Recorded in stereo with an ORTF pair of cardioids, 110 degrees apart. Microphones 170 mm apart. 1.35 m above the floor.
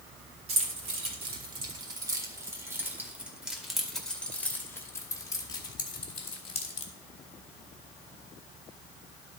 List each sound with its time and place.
0.5 s keys jangling: 40° right, 2.5 m; by 6.9 s 40° left, 2.5 m